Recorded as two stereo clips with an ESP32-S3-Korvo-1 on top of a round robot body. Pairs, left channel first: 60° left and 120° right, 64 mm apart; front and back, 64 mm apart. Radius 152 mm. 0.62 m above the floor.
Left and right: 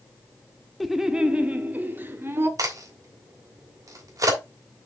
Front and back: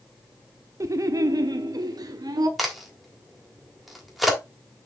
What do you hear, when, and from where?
0.8 s laughter: 150° left, 1.1 m; by 2.5 s 170° right, 1.9 m
2.6 s a crack: 90° right, 3 m